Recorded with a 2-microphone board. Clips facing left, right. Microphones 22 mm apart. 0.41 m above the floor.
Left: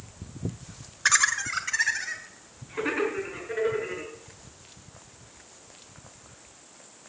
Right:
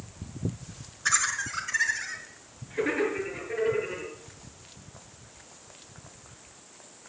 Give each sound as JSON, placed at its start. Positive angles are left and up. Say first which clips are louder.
{"t": 1.1, "sound": "laughter", "louder": "left 4 dB", "side_deg": 45, "distance_m": 1.2}